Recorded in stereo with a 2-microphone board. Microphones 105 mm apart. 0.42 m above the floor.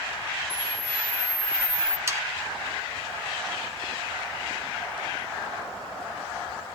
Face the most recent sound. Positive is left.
turn(degrees=-25)  # may be behind; listen again after turning